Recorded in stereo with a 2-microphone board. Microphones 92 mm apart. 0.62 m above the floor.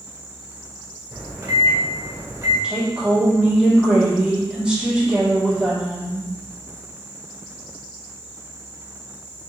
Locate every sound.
1.1 s a microwave: 35° right (ahead or behind), 1.3 m
2.6 s a woman speaking: 10° right (ahead or behind), 1.7 m